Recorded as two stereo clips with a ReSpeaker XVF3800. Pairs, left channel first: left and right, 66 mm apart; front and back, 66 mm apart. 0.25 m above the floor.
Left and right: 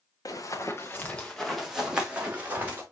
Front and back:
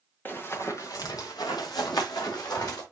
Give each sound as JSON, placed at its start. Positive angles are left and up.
{"t": 0.2, "sound": "running footsteps", "azimuth_deg": 60, "distance_m": 2.0}